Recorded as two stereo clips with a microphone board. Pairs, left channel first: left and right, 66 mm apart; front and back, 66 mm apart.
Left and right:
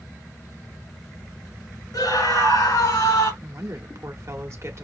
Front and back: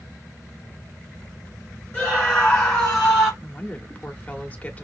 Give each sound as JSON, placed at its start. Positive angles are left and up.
{"t": 1.9, "sound": "a scream", "azimuth_deg": 75, "distance_m": 4.5}
{"t": 3.4, "sound": "a woman speaking", "azimuth_deg": -60, "distance_m": 1.1}